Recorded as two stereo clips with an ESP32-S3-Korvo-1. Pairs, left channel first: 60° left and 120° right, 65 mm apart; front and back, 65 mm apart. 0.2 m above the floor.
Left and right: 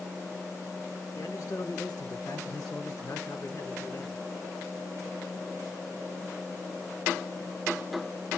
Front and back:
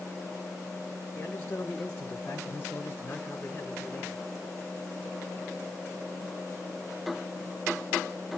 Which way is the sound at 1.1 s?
55° left.